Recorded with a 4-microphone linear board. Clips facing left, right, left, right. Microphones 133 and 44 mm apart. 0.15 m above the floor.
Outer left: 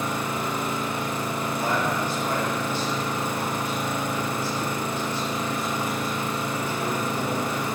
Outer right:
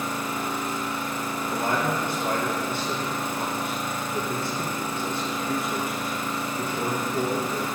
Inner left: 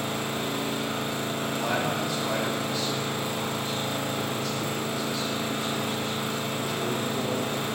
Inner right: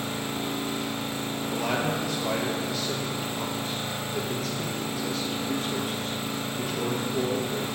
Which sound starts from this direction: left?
An engine running, at 0.0 s.